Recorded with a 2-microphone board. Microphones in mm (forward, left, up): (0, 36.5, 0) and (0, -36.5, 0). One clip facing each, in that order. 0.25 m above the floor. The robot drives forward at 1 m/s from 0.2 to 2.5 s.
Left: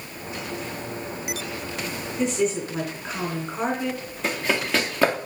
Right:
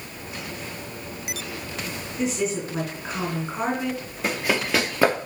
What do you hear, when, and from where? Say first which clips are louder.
2.2 s a woman speaking: left 2 dB; centre (ahead or behind), 2.5 m
4.2 s running footsteps: right 1 dB; 5° right (ahead or behind), 1.8 m